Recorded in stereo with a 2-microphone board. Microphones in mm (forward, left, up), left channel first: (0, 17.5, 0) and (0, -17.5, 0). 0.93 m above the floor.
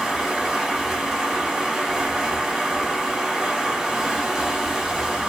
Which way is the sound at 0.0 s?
10° right (ahead or behind).